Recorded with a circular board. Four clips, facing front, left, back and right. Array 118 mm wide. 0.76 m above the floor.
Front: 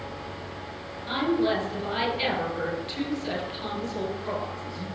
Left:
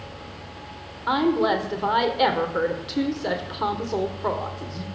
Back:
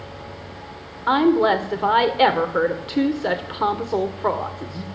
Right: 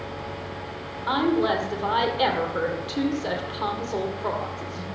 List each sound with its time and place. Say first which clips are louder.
1.1 s a woman speaking: left 1 dB, back 8 dB; 170° left, 2 m